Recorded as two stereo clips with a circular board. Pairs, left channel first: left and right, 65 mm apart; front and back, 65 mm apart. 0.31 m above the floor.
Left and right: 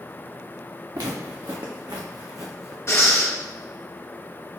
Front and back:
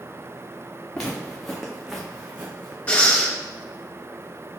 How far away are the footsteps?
About 1.5 m.